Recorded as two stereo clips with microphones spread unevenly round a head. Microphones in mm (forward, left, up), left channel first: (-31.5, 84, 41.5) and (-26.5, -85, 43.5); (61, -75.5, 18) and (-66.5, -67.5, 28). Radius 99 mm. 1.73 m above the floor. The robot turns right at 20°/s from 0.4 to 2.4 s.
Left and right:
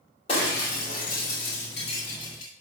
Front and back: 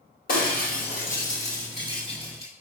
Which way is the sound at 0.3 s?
30° left.